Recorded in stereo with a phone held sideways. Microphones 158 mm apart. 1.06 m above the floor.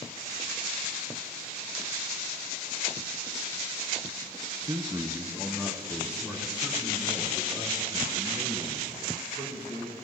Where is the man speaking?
25° right (ahead or behind), 0.6 m; by 9.9 s 5° right (ahead or behind), 7 m.